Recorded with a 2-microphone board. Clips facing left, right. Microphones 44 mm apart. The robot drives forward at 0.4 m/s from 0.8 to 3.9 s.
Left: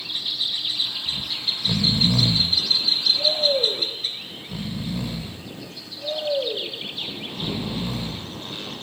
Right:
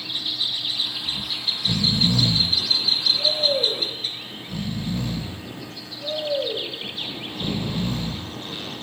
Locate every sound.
1.1 s snoring: 15° left (ahead or behind), 0.6 m; by 8.4 s 10° left (ahead or behind), 0.9 m